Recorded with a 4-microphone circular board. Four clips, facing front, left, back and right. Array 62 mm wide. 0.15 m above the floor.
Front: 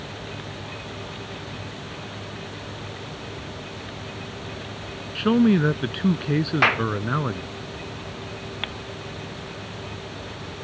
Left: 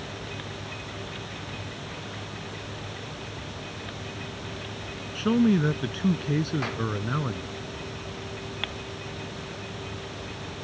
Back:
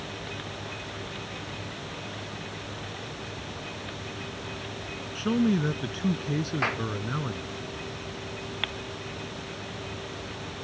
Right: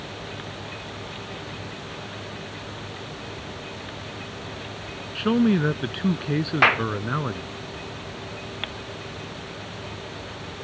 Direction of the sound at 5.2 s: 30° right.